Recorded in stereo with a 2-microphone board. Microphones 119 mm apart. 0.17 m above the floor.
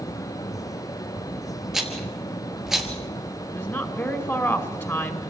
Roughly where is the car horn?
No car horn in this recording.